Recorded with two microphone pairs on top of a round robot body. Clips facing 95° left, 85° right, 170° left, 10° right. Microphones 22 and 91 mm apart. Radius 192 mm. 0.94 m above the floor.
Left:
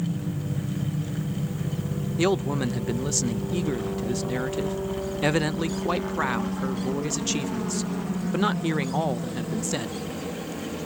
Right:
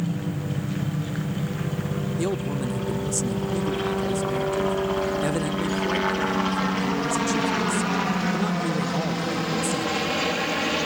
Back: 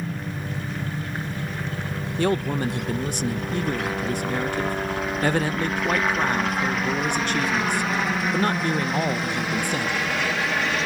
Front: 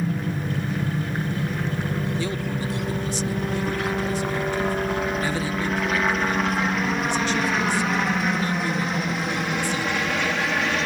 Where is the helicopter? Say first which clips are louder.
Right 2 dB, front 5 dB; 65° right; by 10.9 s 95° right.